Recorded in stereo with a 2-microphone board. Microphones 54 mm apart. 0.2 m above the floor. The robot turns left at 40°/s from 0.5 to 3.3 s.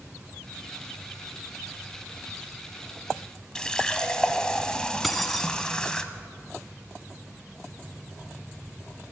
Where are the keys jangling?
Centre (ahead or behind), 1.0 m.